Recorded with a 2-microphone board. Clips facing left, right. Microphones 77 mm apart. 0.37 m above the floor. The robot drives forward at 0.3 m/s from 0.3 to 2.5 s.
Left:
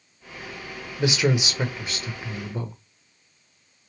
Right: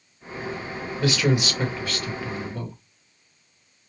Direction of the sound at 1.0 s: 20° left (ahead or behind).